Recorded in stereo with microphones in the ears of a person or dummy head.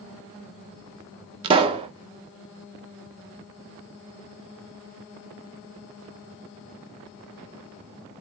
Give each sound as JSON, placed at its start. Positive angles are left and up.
{"t": 1.4, "sound": "a pop", "side_deg": -30, "distance_m": 0.8}